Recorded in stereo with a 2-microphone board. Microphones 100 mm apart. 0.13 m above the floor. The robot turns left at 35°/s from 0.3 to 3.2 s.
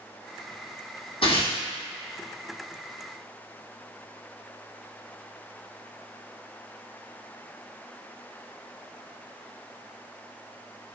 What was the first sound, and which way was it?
Tearing paper, 70° left (ahead or behind).